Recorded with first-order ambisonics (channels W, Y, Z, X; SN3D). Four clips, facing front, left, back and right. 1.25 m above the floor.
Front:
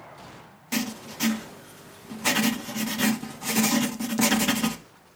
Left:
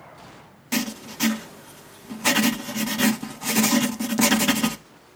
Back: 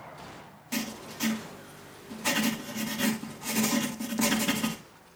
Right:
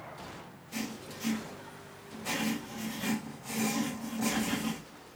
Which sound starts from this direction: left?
Writing, at 0.7 s.